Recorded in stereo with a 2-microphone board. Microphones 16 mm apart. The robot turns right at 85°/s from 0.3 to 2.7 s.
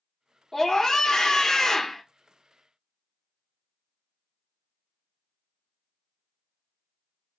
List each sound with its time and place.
0.5 s a scream: 30° left, 1.0 m; by 2.0 s 155° left, 1.0 m